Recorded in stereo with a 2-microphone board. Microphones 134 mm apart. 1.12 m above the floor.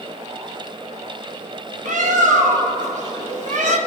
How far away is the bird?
About 1.4 m.